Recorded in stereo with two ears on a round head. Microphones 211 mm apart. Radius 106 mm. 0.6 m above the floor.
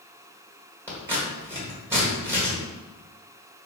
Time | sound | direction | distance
0.9 | scissors | 10° right (ahead or behind) | 1.6 m